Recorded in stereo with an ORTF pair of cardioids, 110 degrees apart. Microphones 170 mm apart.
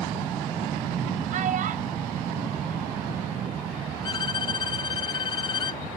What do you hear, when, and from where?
1.3 s a child speaking: 50° right; by 3.6 s 60° right
4.0 s a violin: 25° left